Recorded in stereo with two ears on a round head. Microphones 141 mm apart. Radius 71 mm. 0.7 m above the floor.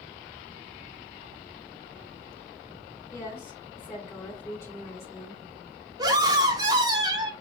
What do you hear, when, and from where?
3.1 s a woman speaking: 15° left (ahead or behind), 2.5 m
6.0 s a scream: 25° right (ahead or behind), 1.2 m